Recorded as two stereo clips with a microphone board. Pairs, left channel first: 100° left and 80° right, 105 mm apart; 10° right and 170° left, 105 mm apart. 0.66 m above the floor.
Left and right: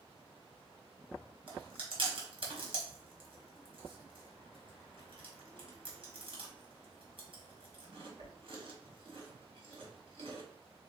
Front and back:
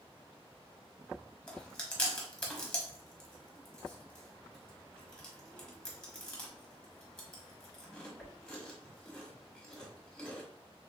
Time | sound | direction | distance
1.5 | chewing | 90° right | 1.4 m